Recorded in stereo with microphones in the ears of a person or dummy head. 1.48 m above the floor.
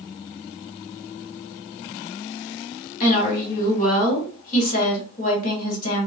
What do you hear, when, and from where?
3.0 s a woman speaking: 45° left (ahead or behind), 1.4 m